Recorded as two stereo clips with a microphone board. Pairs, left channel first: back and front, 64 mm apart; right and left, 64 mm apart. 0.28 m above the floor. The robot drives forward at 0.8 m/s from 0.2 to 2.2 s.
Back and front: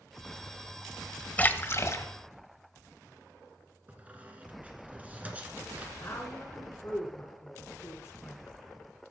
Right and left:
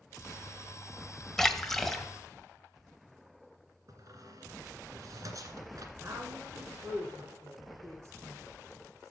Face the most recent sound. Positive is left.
turn(degrees=130)